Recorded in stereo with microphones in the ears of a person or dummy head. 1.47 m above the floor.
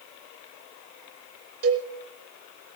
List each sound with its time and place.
1.6 s a cowbell: 60° right (ahead or behind), 5.5 m